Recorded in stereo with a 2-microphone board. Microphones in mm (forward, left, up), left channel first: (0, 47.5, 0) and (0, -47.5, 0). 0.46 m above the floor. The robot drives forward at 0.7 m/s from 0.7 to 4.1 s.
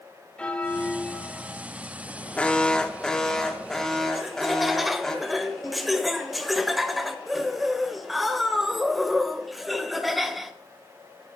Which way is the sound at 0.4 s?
10° left (ahead or behind).